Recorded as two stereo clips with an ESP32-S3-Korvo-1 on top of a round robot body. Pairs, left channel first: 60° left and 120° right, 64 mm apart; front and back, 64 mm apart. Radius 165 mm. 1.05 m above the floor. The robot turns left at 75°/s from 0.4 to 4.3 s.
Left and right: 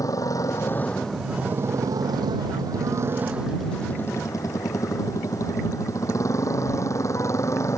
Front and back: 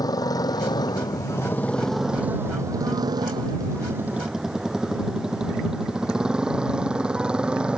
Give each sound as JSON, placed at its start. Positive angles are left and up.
{"t": 0.0, "sound": "a motorcycle", "azimuth_deg": 25}